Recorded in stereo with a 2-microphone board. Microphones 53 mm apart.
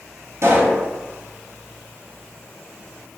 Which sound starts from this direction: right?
A pop, at 0.4 s.